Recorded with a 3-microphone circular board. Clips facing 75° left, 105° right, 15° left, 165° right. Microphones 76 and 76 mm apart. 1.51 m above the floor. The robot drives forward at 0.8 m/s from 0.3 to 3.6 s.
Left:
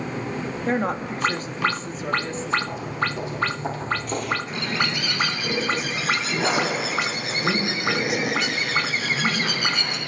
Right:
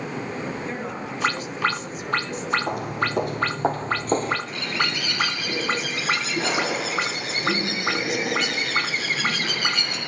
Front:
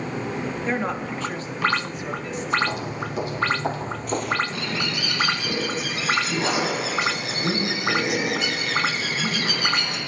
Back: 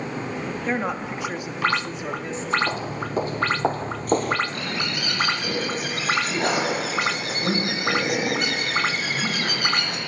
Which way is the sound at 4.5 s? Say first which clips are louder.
Left 1 dB, front 1 dB; 160° left.